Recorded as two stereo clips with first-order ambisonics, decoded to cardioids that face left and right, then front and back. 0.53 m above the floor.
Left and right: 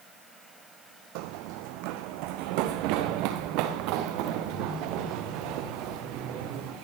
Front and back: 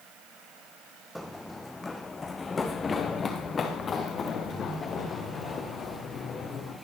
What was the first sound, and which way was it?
Running footsteps, 90° right.